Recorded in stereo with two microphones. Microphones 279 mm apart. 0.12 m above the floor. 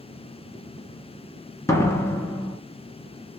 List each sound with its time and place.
1.7 s a door slam: 10° left (ahead or behind), 1.0 m